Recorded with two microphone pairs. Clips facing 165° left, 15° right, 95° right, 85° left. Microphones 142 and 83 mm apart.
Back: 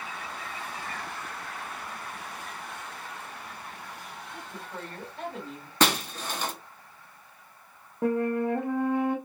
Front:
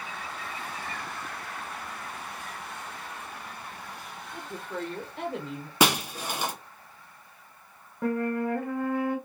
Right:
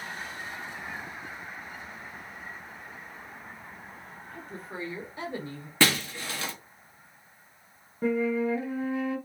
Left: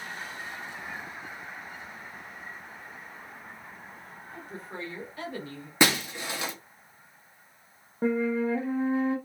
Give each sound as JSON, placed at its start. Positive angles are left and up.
{"t": 4.3, "sound": "a woman speaking", "azimuth_deg": 10, "distance_m": 1.0}
{"t": 5.8, "sound": "breaking glass", "azimuth_deg": 60, "distance_m": 0.6}
{"t": 8.0, "sound": "a flute", "azimuth_deg": 110, "distance_m": 0.6}